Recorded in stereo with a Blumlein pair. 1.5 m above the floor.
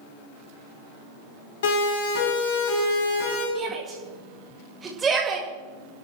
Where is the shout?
20° right, 1.9 m.